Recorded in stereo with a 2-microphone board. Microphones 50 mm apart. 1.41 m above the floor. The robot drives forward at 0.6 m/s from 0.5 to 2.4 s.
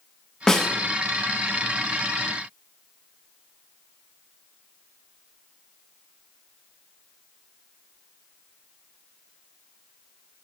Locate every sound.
0.5 s a snare drum: 10° left (ahead or behind), 0.7 m